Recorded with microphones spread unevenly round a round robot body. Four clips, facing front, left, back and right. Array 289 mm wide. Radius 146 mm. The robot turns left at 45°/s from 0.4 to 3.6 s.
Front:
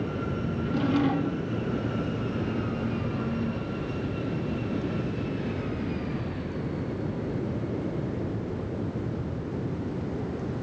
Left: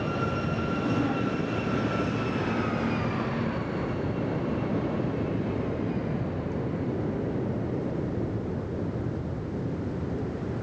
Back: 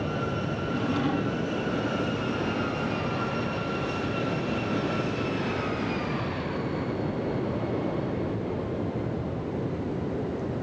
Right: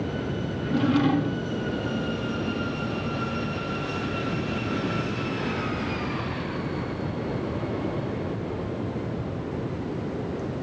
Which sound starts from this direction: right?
A drawer, at 0.6 s.